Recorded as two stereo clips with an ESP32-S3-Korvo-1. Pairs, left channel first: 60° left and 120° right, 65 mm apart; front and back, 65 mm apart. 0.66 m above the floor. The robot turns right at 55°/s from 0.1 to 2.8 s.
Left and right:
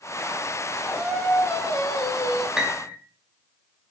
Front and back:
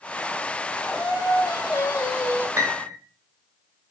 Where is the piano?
160° left, 0.7 m; by 3.0 s 175° left, 0.7 m.